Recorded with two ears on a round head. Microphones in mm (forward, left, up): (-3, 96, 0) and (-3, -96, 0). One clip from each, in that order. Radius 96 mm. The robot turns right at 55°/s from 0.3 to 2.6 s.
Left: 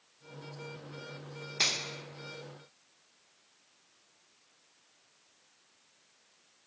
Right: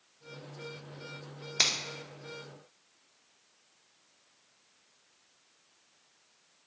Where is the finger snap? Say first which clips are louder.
Right 2 dB; 35° right (ahead or behind), 0.7 m.